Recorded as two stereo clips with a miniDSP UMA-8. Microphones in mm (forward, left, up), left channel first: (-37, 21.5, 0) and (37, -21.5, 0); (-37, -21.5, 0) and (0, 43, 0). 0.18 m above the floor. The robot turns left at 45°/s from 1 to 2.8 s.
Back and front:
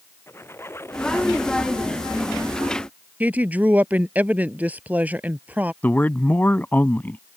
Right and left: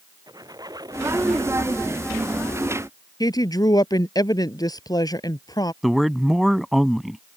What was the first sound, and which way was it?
A squeak, 90° left.